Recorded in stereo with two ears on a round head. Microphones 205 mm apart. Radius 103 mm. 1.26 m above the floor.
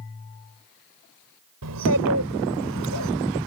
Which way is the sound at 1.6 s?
75° right (ahead or behind).